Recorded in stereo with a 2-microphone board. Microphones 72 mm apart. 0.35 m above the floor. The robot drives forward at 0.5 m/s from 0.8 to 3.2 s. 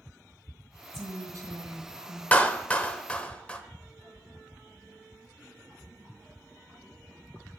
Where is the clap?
20° left (ahead or behind), 0.6 m; by 3.6 s 15° left (ahead or behind), 0.8 m.